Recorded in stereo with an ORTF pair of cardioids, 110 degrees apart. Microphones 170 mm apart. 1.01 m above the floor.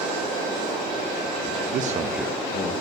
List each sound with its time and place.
1.7 s a man speaking: 60° right, 0.9 m; by 2.7 s 55° left, 1.0 m